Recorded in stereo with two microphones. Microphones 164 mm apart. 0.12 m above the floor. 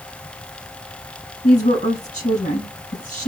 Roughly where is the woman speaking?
Left.